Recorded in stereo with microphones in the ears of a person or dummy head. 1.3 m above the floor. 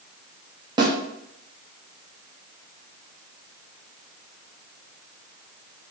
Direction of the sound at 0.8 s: 15° right (ahead or behind).